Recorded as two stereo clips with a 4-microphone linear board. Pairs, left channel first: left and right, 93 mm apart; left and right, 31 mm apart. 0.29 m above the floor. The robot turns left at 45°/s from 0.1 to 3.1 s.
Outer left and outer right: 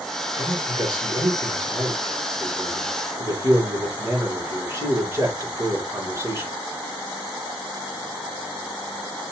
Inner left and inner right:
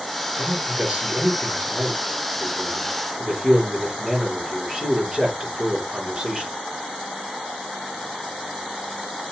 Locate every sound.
0.4 s a man speaking: 25° right (ahead or behind), 3.5 m; by 6.5 s 30° right (ahead or behind), 3.5 m